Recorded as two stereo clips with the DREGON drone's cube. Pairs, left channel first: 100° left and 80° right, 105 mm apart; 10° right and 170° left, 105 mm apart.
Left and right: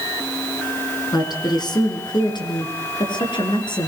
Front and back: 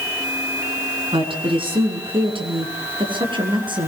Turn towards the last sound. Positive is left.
turn(degrees=135)